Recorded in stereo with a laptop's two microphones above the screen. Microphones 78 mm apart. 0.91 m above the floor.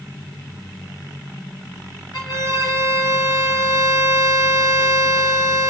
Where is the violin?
60° left (ahead or behind), 5 m.